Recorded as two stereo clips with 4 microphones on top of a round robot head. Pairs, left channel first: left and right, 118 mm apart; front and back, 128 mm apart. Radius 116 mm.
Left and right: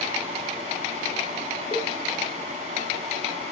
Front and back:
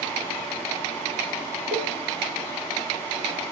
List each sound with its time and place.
1.7 s a cowbell: 155° left, 0.8 m